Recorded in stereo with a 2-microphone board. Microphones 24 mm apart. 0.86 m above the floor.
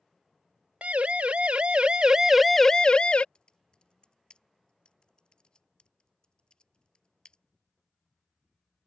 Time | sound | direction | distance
0.8 | a siren | 65° right (ahead or behind) | ?
3.4 | typing on a keyboard | 35° left (ahead or behind) | ?